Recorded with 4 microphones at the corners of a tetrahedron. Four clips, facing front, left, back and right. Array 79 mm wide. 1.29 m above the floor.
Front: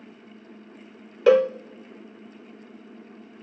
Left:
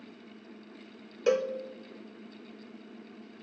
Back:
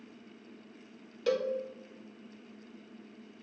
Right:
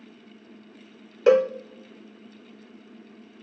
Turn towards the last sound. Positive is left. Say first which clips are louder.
# right 9 dB, front 13 dB
turn(degrees=-35)